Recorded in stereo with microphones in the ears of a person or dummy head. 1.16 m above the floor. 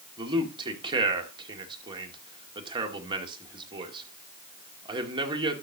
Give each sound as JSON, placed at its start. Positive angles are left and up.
{"t": 0.2, "sound": "a man speaking", "side_deg": -25, "distance_m": 2.5}